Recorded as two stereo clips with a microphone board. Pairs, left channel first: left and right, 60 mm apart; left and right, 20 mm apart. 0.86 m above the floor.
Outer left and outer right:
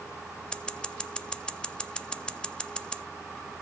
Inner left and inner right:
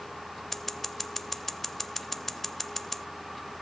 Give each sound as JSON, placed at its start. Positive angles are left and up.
{"t": 0.5, "sound": "scissors", "side_deg": 15, "distance_m": 0.5}